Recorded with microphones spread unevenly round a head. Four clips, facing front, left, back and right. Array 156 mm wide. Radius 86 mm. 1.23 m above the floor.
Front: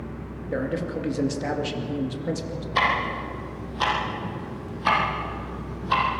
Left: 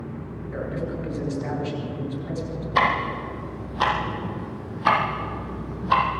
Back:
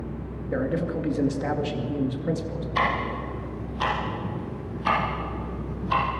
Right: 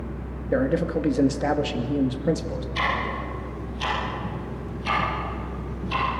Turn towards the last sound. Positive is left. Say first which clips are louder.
# left 6 dB, front 2 dB
turn(degrees=60)